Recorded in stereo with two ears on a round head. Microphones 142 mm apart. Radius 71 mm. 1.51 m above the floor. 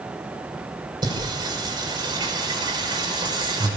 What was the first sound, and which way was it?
Singing, 25° right (ahead or behind).